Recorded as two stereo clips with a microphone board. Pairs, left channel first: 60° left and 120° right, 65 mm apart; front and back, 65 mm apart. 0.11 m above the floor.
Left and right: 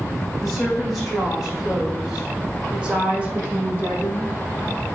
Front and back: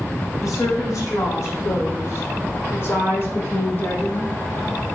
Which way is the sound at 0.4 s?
25° right.